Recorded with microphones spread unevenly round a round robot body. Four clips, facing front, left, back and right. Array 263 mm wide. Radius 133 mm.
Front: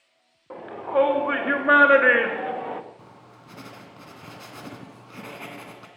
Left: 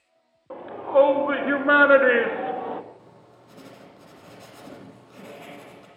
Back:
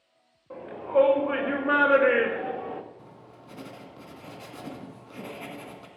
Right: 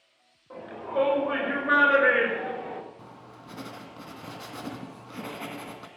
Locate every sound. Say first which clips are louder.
0.5 s a shout: left 10 dB, even; 35° left, 3.5 m
3.0 s writing: right 4 dB, even; 55° right, 2 m